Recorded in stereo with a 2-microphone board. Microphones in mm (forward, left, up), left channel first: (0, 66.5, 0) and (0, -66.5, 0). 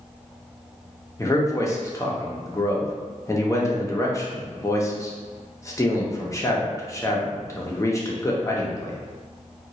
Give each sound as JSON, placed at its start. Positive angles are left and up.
{"t": 1.2, "sound": "a man speaking", "side_deg": 25, "distance_m": 0.7}